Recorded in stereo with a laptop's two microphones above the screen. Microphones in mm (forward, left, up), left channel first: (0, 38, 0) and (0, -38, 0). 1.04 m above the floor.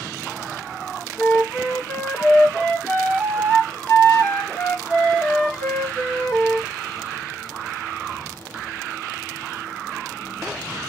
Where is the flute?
25° left (ahead or behind), 1.7 m.